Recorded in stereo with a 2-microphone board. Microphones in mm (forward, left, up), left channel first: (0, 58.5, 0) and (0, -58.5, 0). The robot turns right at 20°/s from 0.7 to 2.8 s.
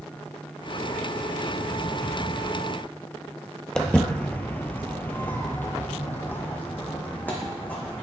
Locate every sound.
3.8 s footsteps: 5° left (ahead or behind), 1.0 m; by 8.1 s 15° left (ahead or behind), 2.5 m